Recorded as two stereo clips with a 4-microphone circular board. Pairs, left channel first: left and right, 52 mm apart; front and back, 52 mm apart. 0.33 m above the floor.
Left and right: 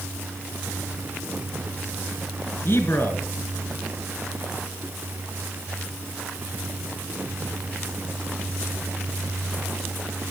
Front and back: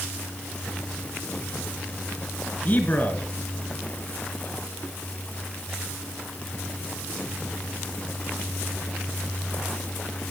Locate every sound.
2.6 s a man speaking: 50° left, 3.5 m